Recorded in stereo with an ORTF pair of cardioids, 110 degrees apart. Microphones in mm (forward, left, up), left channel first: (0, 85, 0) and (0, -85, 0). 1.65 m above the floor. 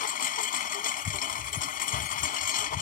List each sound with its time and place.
0.0 s a lawn mower: 55° left